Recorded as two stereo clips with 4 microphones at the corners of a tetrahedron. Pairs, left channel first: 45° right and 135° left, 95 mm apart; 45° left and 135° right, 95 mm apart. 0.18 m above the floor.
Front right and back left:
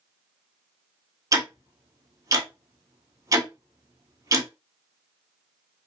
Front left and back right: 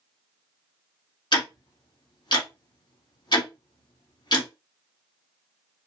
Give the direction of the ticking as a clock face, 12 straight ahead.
9 o'clock.